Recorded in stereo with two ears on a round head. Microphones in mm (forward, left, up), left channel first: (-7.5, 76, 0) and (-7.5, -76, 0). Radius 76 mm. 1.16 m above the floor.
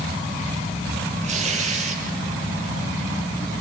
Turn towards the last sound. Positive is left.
turn(degrees=-45)  # may be behind; listen again after turning